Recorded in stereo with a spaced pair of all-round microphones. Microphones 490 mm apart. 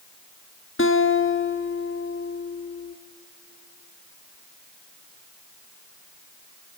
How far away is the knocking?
I don't hear knocking.